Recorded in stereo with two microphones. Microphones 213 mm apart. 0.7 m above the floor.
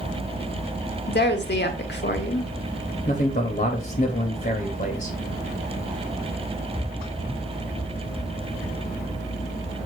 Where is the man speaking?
40° left (ahead or behind), 0.8 m.